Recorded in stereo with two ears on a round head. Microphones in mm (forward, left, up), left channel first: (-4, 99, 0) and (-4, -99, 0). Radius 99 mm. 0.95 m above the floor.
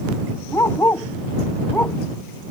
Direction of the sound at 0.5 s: 10° left (ahead or behind).